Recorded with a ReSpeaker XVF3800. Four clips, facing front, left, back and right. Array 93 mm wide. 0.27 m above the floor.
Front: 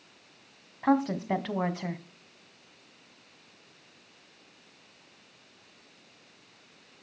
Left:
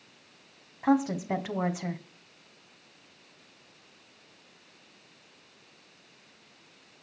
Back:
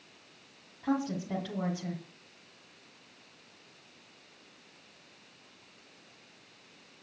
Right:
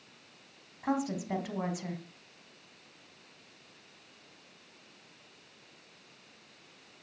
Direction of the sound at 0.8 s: 30° left.